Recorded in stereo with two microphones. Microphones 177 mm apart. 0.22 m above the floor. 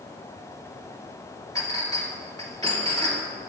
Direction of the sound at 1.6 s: 20° left (ahead or behind).